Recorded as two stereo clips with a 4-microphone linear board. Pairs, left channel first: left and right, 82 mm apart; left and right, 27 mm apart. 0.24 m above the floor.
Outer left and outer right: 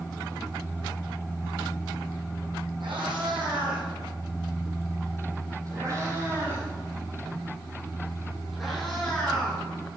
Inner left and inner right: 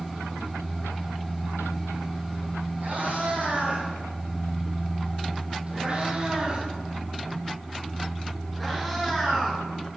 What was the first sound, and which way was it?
A cat meowing, 70° right (ahead or behind).